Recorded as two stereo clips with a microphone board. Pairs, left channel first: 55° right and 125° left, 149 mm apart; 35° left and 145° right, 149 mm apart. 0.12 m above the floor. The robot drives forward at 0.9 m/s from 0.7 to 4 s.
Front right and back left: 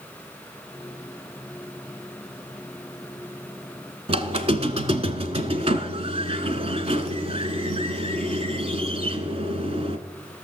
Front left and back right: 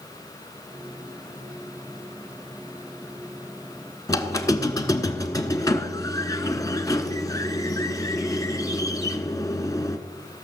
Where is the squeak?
95° left, 0.9 m.